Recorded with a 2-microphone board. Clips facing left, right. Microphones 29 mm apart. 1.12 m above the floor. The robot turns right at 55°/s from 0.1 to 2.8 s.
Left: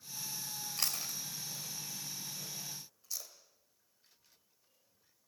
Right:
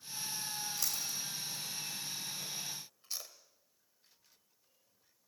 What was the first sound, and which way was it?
Chewing, 60° left (ahead or behind).